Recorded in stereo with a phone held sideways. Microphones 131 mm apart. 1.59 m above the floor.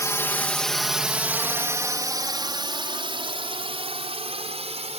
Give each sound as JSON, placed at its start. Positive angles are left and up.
{"t": 0.0, "sound": "a drone", "side_deg": 25}